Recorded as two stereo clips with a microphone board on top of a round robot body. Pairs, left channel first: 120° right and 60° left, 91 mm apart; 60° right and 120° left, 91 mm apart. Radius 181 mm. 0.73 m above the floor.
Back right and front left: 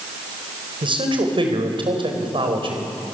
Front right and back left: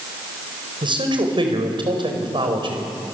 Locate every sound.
0.8 s a man speaking: 90° left, 4.5 m